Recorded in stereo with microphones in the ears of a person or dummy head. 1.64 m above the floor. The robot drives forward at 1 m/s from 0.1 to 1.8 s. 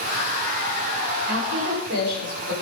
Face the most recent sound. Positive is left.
turn(degrees=-70)  # may be behind; listen again after turning